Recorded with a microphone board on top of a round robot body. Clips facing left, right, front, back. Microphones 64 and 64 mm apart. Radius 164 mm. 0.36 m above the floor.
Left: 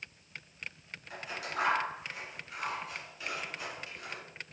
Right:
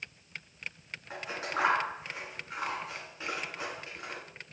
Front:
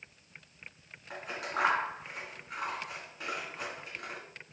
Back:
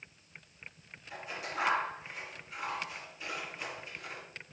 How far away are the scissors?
About 2 m.